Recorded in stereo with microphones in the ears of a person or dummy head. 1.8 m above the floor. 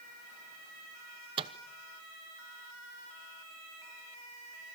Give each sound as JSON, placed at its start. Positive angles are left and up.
{"t": 1.4, "sound": "a microwave", "side_deg": -30, "distance_m": 1.0}